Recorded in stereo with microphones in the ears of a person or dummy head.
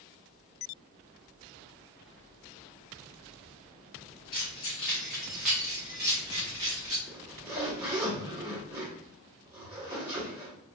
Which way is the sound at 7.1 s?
20° right (ahead or behind).